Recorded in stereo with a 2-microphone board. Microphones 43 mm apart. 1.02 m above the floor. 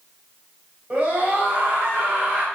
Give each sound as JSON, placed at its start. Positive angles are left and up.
{"t": 0.9, "sound": "a scream", "side_deg": -35, "distance_m": 5.0}